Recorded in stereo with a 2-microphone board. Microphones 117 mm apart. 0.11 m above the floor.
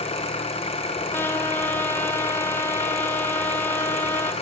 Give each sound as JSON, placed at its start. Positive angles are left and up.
{"t": 0.0, "sound": "an engine running", "side_deg": 55, "distance_m": 4.0}
{"t": 1.1, "sound": "a trumpet", "side_deg": 20, "distance_m": 1.8}